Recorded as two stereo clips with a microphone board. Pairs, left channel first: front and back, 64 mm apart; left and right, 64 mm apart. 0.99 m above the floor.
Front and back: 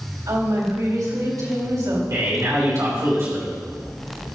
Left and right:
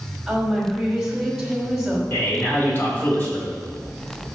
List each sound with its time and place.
0.3 s a woman speaking: 175° right, 4 m
2.1 s a man speaking: 145° left, 4 m